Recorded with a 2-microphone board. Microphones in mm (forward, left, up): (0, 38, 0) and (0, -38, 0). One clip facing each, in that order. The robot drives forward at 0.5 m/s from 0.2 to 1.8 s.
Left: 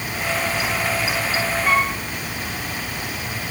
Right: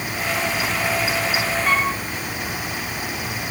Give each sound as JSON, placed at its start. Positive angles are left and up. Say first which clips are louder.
{"t": 1.6, "sound": "a flute", "louder": "left 2 dB", "side_deg": 5, "distance_m": 5.0}